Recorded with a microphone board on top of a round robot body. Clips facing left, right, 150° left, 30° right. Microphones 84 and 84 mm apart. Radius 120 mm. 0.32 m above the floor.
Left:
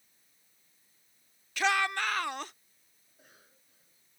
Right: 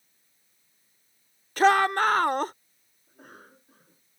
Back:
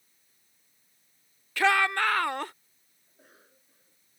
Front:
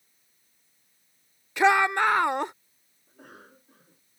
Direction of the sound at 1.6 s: 90° right.